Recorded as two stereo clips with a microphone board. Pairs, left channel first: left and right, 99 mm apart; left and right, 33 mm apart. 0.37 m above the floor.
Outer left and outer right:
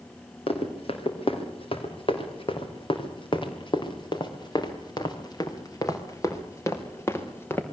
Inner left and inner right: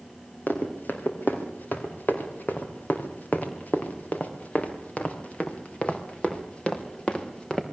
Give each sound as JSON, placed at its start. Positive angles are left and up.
{"t": 0.5, "sound": "running footsteps", "side_deg": 70, "distance_m": 5.0}